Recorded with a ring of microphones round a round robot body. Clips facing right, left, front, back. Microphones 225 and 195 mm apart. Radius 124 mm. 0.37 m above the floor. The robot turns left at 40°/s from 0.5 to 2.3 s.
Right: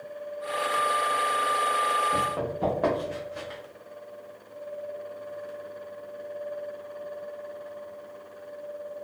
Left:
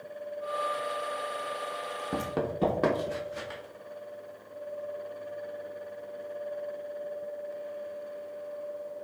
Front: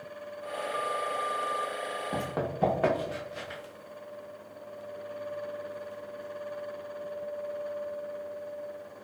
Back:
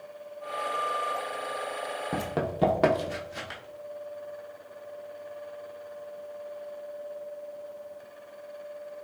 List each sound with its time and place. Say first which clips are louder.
2.1 s running footsteps: left 4 dB, back 3 dB; 120° left, 0.7 m; by 3.6 s 165° left, 1.1 m